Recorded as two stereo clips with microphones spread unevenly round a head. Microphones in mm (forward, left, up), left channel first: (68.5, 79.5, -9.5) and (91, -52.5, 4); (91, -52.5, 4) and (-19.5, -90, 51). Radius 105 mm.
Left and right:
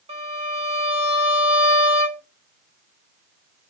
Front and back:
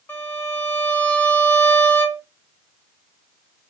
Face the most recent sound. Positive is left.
turn(degrees=-70)